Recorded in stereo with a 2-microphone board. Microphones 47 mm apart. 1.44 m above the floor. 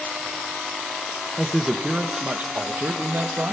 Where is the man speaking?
5° right (ahead or behind), 1.4 m; by 3.5 s 50° right (ahead or behind), 2 m.